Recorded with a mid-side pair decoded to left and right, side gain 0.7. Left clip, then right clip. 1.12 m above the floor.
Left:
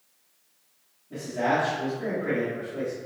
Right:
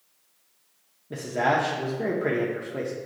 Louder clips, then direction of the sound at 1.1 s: Right 2 dB; 45° right.